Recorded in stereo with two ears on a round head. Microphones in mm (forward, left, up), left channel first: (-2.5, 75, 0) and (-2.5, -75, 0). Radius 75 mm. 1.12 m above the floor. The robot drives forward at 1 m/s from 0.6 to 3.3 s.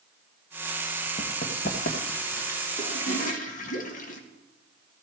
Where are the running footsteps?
55° left (ahead or behind), 1.9 m; by 2.6 s 50° left (ahead or behind), 1.7 m.